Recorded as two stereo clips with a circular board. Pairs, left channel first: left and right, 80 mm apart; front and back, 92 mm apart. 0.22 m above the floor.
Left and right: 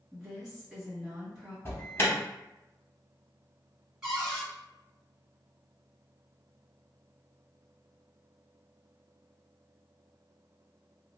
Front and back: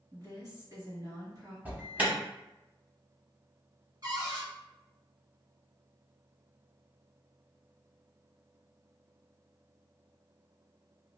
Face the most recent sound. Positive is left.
turn(degrees=-170)